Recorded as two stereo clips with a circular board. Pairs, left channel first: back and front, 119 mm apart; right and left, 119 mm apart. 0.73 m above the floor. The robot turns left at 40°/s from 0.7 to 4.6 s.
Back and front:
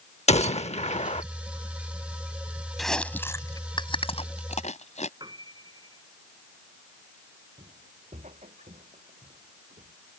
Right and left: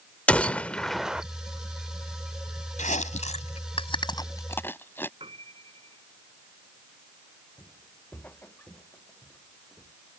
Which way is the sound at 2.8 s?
90° right.